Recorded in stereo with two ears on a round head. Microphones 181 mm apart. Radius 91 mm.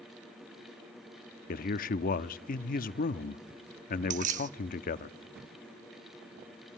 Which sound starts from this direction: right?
Keys jangling, at 4.1 s.